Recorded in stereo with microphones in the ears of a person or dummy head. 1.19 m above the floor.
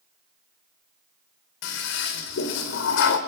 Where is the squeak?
I don't hear a squeak.